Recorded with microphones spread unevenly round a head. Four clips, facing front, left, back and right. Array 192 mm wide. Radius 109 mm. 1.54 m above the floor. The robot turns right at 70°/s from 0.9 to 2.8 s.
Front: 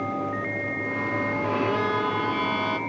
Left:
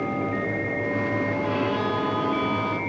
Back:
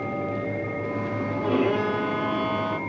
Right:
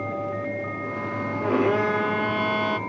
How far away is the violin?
About 0.5 m.